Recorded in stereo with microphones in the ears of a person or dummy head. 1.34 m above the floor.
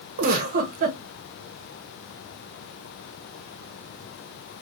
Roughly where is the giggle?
Right.